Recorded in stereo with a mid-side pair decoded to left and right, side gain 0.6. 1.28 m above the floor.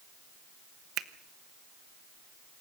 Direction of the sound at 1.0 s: 60° right.